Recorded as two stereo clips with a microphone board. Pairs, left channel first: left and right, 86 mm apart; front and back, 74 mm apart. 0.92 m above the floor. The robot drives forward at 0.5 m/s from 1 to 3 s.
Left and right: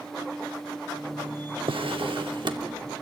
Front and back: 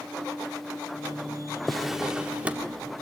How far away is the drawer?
About 1.1 m.